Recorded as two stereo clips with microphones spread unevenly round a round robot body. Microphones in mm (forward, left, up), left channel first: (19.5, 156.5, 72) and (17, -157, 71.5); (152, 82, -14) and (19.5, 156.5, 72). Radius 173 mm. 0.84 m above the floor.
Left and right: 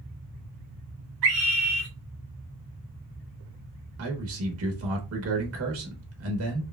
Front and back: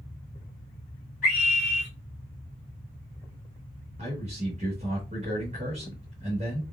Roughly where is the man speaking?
Behind right.